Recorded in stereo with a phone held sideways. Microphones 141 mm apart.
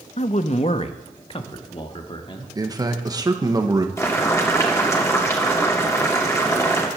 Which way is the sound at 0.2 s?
55° left (ahead or behind).